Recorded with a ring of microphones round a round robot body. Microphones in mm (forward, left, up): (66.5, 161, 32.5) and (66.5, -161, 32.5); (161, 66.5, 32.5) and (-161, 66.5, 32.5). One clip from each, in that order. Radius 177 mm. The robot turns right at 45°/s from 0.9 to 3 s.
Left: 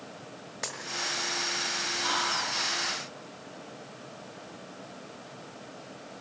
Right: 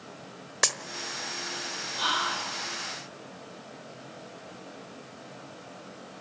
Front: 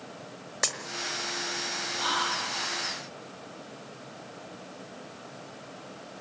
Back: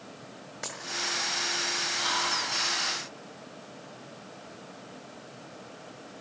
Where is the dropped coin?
60° right, 1.3 m.